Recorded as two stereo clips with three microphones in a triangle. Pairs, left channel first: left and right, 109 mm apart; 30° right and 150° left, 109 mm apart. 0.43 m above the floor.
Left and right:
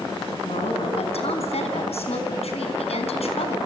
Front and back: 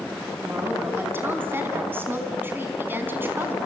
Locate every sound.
0.4 s a woman speaking: 80° left, 4 m